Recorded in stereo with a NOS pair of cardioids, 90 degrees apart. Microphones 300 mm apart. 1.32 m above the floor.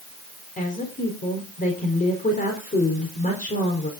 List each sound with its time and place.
0.6 s a woman speaking: 25° left, 4 m